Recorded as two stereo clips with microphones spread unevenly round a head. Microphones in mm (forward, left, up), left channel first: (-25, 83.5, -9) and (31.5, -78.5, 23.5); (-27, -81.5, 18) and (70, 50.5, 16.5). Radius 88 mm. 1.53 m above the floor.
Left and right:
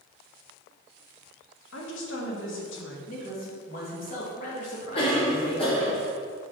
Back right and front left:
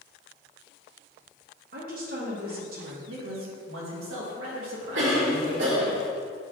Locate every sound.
1.7 s a woman speaking: 95° left, 1.4 m
3.1 s a man speaking: 65° left, 2 m
5.0 s a cough: 50° left, 2.5 m